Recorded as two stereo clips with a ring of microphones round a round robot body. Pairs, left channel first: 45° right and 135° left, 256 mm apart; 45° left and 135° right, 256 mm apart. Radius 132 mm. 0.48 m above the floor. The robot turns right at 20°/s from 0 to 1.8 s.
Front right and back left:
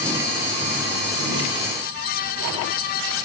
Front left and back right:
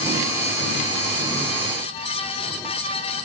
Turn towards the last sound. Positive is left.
No sound to turn to.